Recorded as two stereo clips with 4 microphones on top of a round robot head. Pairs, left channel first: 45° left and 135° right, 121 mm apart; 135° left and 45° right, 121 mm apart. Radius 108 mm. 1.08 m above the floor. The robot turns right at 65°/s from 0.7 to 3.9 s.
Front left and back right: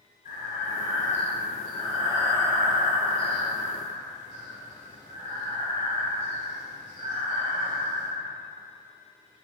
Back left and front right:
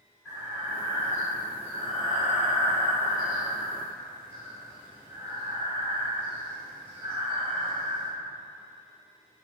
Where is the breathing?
35° left, 1.3 m; by 8.1 s 115° right, 1.3 m.